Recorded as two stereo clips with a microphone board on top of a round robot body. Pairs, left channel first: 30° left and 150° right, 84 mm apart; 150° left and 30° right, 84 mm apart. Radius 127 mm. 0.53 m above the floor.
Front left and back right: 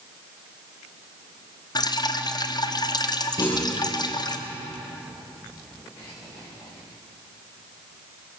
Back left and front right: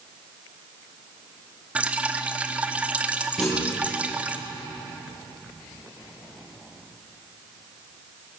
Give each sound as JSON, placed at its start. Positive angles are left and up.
{"t": 1.8, "sound": "dripping", "azimuth_deg": 40, "distance_m": 1.5}
{"t": 3.4, "sound": "a clunk", "azimuth_deg": 65, "distance_m": 8.5}